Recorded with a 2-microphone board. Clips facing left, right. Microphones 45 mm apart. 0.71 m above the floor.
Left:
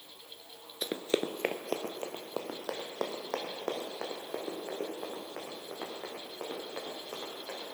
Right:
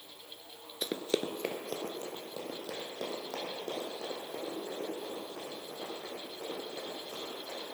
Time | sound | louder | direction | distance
0.8 | running footsteps | left 1 dB | 5° left (ahead or behind) | 0.6 m